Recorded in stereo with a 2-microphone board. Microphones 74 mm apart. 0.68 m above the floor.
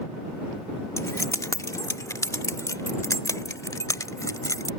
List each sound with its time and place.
1.0 s keys jangling: 40° left (ahead or behind); by 4.7 s 50° left (ahead or behind)